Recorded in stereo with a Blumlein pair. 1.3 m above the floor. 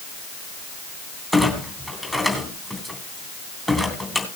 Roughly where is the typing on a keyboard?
No typing on a keyboard in this recording.